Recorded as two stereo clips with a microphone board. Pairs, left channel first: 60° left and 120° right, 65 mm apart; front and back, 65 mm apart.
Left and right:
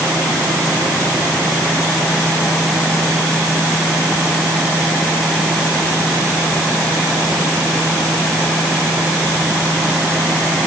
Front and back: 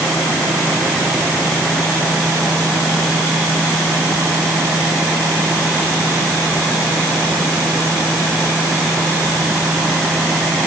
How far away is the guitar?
No guitar in this recording.